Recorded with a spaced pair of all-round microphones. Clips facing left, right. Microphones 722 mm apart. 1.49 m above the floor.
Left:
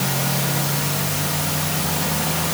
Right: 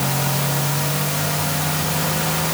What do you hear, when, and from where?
Only background noise.